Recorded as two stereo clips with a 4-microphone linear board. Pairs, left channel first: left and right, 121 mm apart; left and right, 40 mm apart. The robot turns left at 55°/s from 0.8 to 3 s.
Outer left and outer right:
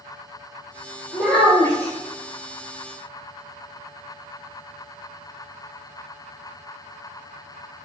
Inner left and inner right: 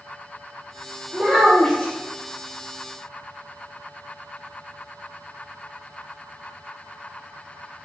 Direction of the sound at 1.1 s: 165° right.